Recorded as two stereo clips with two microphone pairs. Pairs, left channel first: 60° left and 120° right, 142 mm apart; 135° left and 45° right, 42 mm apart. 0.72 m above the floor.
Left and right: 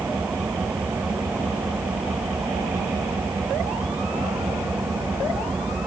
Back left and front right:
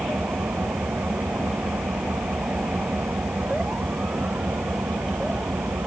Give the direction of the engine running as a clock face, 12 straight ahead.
1 o'clock.